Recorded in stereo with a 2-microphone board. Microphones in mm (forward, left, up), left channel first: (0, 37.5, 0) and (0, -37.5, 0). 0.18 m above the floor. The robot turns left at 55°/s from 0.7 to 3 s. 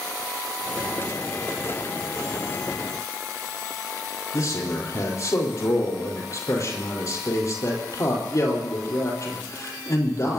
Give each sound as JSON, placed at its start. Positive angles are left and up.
{"t": 4.3, "sound": "a man speaking", "side_deg": 50, "distance_m": 5.0}